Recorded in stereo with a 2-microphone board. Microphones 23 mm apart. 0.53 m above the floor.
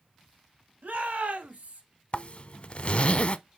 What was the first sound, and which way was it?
A shout, 80° right.